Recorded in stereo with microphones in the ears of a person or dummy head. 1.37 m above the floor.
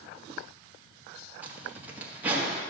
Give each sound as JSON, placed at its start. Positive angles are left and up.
{"t": 1.4, "sound": "a zipper", "side_deg": -15, "distance_m": 1.7}